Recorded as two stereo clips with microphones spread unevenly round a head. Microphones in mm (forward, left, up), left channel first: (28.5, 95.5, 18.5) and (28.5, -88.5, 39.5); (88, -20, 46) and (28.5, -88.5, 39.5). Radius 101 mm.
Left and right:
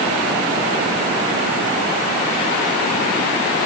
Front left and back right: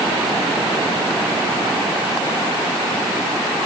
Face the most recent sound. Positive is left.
No sound to turn to.